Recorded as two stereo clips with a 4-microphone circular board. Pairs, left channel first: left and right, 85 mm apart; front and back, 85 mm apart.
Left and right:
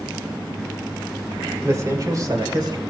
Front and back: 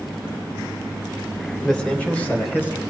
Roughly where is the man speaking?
Right.